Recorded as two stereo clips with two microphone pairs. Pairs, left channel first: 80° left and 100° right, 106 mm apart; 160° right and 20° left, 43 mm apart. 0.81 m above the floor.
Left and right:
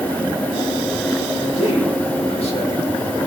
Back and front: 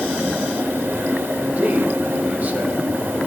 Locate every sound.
1.4 s a man speaking: 70° left, 3.5 m